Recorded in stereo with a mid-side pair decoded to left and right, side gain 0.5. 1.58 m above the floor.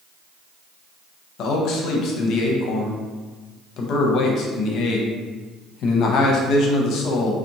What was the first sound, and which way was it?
A man speaking, 70° left.